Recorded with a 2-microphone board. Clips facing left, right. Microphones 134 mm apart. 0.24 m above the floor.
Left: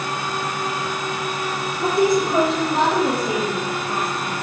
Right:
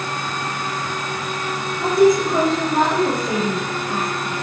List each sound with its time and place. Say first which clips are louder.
1.8 s a woman speaking: right 4 dB; 5° left (ahead or behind), 8.5 m; by 4.3 s 20° left (ahead or behind), 8 m